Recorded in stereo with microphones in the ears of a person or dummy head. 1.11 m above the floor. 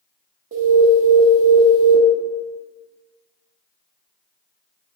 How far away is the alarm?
About 0.5 m.